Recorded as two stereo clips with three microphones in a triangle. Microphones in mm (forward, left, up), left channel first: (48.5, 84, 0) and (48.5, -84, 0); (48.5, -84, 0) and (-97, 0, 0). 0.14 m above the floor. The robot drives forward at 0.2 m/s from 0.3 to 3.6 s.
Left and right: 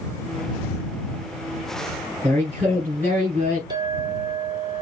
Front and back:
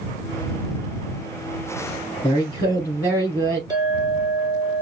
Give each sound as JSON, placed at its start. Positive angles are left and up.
{"t": 2.2, "sound": "a woman speaking", "azimuth_deg": -90, "distance_m": 1.6}
{"t": 3.7, "sound": "a clink", "azimuth_deg": -150, "distance_m": 1.6}